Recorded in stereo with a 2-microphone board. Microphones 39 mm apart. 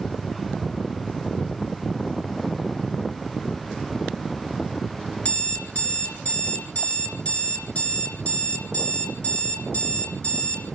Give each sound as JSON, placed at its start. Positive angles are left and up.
{"t": 5.2, "sound": "an alarm clock", "side_deg": 35, "distance_m": 2.5}